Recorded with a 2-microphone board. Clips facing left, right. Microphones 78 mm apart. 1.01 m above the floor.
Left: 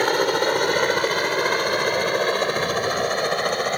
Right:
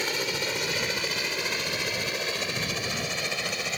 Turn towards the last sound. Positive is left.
turn(degrees=50)  # may be behind; listen again after turning